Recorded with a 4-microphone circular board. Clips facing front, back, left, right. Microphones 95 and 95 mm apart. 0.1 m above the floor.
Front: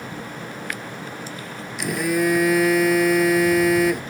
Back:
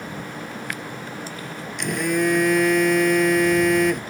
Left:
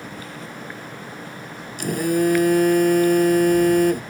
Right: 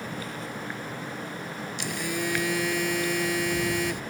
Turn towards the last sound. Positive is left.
turn(degrees=85)